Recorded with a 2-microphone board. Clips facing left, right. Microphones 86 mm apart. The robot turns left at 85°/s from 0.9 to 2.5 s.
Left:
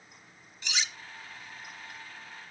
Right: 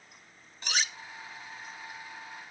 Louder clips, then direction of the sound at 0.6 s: Right 2 dB; 45° right (ahead or behind).